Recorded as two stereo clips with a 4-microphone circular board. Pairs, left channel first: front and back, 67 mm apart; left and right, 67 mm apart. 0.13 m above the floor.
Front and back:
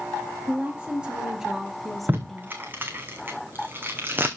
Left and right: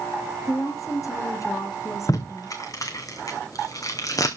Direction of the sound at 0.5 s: 110° left.